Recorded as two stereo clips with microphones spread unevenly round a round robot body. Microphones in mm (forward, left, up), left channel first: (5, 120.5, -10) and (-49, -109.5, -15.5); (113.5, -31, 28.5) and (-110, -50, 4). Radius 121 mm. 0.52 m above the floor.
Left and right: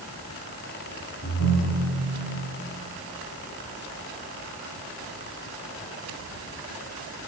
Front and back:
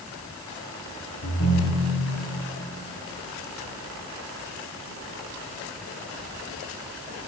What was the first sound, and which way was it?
A ringtone, 40° left.